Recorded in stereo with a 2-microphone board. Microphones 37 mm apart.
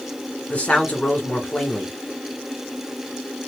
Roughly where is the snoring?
I don't hear snoring.